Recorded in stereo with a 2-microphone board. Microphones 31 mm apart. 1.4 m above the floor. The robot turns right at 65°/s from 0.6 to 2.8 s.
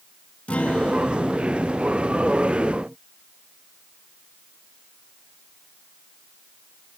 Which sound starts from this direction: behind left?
A guitar, at 0.5 s.